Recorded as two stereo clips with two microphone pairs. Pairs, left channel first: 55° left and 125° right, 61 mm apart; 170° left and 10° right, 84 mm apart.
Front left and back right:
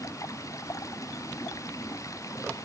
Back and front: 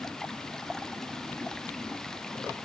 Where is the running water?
85° left.